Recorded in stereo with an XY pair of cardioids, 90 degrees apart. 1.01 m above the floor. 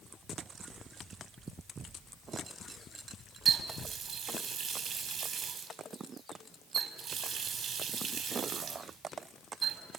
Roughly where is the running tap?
Ahead right.